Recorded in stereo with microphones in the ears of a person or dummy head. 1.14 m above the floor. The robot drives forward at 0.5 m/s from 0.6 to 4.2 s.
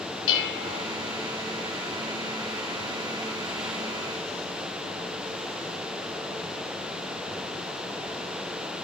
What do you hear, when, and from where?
0.3 s dishes clattering: 85° left, 4 m